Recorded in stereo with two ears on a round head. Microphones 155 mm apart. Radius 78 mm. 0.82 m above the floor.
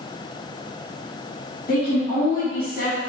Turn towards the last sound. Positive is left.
turn(degrees=55)  # may be behind; listen again after turning